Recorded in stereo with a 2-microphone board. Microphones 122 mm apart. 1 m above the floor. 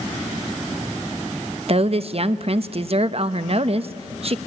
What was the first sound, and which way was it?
A woman speaking, 50° right (ahead or behind).